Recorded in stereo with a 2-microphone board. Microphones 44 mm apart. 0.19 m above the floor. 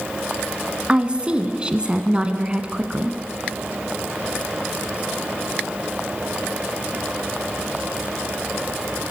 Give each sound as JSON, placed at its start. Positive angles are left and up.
{"t": 0.9, "sound": "a woman speaking", "side_deg": -20, "distance_m": 1.6}